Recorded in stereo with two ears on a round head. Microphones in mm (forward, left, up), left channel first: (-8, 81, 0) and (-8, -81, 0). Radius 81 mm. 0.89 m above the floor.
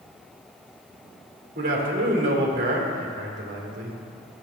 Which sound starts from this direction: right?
A man speaking, at 1.6 s.